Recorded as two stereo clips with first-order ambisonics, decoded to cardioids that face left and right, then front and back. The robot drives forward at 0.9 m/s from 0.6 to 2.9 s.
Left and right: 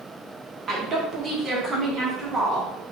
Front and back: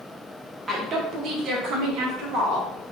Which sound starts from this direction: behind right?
A woman speaking, at 0.7 s.